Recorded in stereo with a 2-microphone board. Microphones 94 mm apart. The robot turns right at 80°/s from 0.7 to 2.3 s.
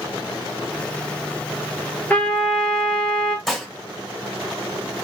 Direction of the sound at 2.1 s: 15° left (ahead or behind).